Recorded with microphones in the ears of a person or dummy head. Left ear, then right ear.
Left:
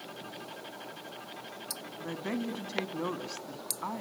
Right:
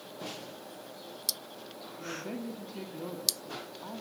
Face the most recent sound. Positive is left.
turn(degrees=50)  # may be behind; listen again after turning